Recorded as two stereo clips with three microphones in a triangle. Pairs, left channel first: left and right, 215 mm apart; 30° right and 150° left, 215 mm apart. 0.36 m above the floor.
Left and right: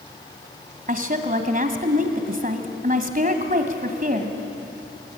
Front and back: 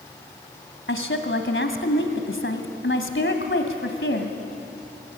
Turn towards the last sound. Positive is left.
turn(degrees=-45)